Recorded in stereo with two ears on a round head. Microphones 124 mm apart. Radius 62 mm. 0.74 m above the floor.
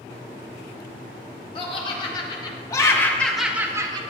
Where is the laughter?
40° left (ahead or behind), 2.5 m; by 4.0 s 35° right (ahead or behind), 0.9 m.